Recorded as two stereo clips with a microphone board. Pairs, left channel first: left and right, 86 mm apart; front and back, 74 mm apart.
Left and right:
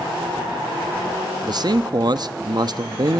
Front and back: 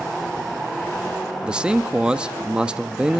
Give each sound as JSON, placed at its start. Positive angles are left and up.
{"t": 1.4, "sound": "a man speaking", "azimuth_deg": -105, "distance_m": 0.9}